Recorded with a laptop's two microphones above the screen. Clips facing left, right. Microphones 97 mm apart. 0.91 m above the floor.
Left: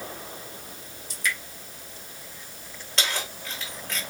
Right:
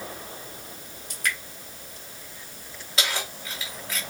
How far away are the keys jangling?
About 1.4 m.